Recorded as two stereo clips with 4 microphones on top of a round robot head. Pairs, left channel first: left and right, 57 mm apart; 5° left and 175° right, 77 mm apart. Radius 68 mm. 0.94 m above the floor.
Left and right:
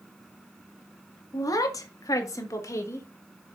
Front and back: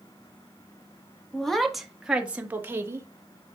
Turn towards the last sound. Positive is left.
turn(degrees=130)